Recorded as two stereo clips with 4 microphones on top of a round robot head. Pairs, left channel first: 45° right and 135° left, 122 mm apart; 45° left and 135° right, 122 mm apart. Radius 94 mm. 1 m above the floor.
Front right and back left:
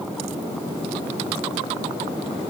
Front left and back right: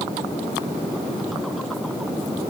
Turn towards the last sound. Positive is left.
No sound to turn to.